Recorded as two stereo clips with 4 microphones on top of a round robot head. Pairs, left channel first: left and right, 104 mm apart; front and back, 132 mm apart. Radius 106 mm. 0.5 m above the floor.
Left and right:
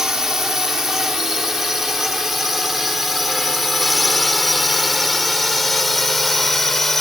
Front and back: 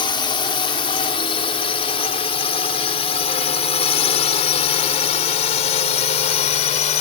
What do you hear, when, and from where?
0.0 s a drone: 10° right; by 7.0 s straight ahead